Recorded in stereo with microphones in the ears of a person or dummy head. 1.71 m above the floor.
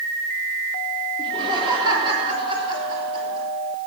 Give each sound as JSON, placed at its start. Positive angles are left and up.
{"t": 1.2, "sound": "laughter", "side_deg": -25, "distance_m": 3.0}